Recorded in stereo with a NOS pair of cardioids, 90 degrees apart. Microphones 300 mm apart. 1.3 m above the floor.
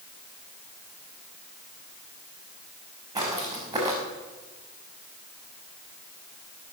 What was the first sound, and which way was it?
Footsteps, 10° right.